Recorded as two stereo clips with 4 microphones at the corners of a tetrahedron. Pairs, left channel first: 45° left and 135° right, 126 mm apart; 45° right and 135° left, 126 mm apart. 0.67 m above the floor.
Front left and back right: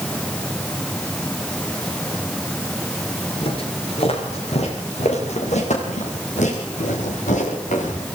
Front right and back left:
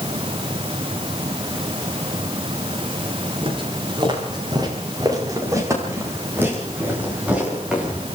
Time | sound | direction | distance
3.4 | footsteps | 90° left | 7.5 m